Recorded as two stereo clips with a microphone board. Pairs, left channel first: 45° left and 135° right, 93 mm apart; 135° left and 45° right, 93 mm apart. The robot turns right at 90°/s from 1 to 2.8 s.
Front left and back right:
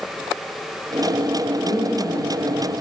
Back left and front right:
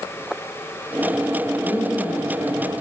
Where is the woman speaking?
60° left, 6 m; by 2.7 s 160° left, 6 m.